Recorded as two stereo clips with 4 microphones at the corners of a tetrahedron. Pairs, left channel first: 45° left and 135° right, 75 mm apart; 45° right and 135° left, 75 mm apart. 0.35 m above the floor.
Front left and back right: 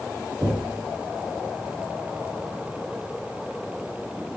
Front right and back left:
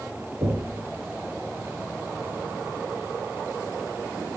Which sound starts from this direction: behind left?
Knocking, at 0.4 s.